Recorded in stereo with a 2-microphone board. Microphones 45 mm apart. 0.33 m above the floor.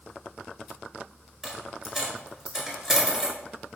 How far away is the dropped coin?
About 1.6 m.